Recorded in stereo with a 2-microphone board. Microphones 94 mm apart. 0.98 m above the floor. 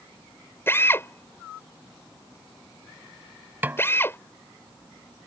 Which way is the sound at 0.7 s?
25° left (ahead or behind).